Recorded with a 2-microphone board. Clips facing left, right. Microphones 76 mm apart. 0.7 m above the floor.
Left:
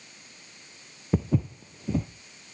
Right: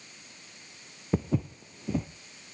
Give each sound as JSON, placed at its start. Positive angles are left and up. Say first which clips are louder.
{"t": 1.1, "sound": "footsteps", "louder": "left 2 dB", "side_deg": 0, "distance_m": 0.9}